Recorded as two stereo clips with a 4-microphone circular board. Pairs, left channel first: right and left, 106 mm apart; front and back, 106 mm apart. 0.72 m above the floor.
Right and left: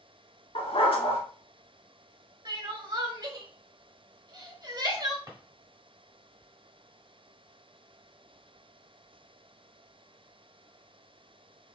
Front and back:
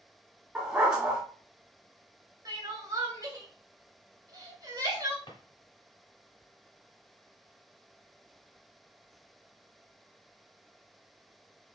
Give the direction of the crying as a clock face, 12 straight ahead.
8 o'clock.